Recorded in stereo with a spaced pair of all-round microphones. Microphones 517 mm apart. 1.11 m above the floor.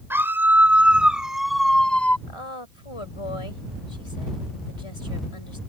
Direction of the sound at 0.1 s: 5° right (ahead or behind).